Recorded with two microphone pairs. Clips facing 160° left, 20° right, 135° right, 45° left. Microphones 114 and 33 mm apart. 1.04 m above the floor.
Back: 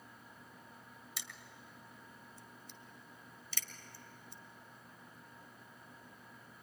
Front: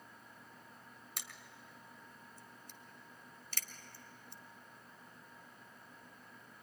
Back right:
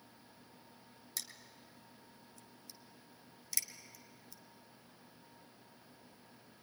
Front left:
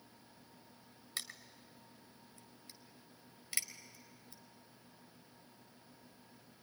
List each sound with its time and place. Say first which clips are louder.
1.2 s crushing: front 1 dB, front left 3 dB; straight ahead, 1.3 m